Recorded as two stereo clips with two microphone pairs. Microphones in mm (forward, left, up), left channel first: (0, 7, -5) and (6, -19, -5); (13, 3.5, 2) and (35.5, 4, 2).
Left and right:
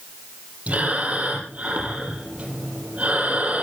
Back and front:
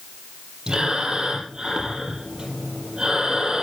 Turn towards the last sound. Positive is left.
turn(degrees=-55)